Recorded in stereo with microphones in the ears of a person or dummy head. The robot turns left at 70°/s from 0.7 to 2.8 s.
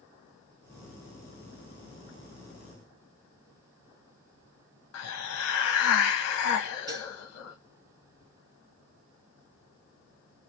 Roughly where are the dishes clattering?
Right.